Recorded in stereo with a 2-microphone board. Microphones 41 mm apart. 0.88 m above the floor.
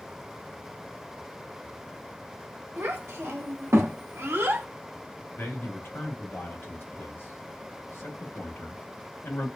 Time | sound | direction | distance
2.8 | a child speaking | 60° right (ahead or behind) | 1.1 m
5.4 | a man speaking | 60° left (ahead or behind) | 1.1 m